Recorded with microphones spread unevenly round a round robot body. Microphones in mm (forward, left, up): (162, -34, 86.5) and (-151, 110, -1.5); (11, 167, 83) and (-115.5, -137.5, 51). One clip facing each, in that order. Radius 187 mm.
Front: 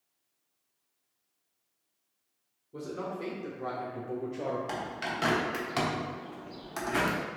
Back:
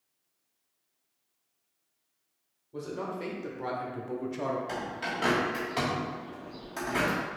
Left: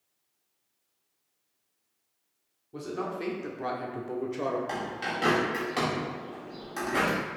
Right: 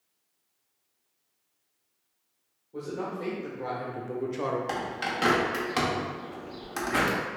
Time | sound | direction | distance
2.7 | a man speaking | 85° left | 1.2 m
4.7 | a bird | 80° right | 1.1 m